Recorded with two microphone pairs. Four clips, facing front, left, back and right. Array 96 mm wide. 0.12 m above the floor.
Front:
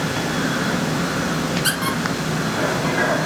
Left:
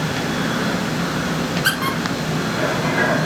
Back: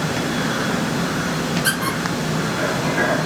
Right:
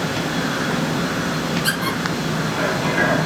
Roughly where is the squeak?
Left.